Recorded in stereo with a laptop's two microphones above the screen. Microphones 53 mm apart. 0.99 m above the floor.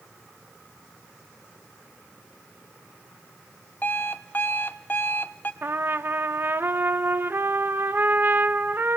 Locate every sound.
3.8 s an alarm clock: 35° left (ahead or behind), 0.7 m
5.6 s a trumpet: 40° right (ahead or behind), 0.8 m